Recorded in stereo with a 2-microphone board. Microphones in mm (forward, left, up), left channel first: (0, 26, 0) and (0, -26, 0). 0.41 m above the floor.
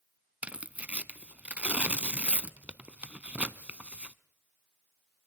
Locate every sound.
0.4 s tearing paper: 30° right (ahead or behind), 0.7 m